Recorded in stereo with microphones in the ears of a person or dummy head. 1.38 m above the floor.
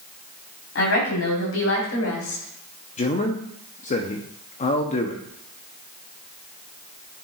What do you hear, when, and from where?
0.8 s a woman speaking: 55° left (ahead or behind), 4 m; by 2.4 s 85° left, 3.5 m
3.0 s a man speaking: 30° left (ahead or behind), 0.7 m